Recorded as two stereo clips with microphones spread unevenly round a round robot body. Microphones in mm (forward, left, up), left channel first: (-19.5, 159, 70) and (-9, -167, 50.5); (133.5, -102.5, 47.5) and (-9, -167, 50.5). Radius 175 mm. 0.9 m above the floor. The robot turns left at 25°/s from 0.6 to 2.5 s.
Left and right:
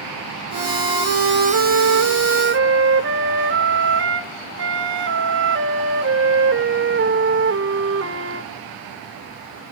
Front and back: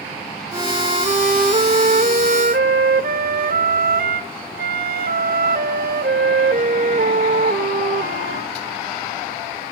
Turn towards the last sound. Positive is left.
turn(degrees=-145)